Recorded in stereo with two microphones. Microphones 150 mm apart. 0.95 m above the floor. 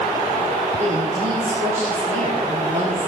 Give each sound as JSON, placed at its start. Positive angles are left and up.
{"t": 0.8, "sound": "a woman speaking", "side_deg": -55, "distance_m": 9.0}